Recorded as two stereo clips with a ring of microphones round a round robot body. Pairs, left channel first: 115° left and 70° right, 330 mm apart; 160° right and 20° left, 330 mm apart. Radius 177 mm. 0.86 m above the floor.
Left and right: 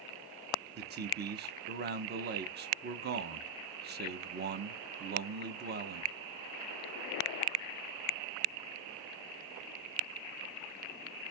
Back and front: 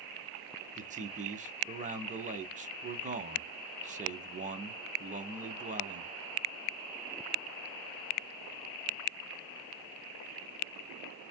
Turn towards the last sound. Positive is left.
turn(degrees=-30)